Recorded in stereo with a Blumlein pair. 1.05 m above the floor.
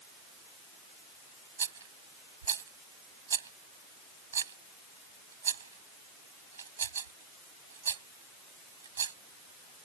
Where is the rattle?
70° right.